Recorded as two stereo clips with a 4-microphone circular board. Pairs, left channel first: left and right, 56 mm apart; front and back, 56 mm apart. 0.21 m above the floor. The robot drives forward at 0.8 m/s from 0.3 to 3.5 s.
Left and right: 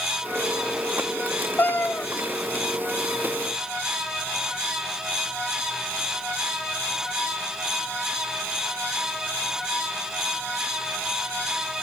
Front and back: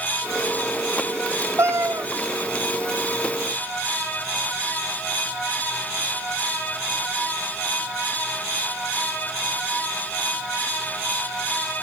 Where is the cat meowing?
140° left, 1.5 m; by 2.1 s 150° left, 1.8 m.